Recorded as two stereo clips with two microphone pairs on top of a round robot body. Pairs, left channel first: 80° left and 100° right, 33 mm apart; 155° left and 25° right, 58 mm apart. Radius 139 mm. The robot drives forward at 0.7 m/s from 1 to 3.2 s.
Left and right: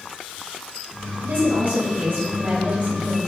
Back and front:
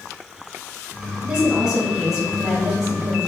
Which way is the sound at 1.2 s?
105° right.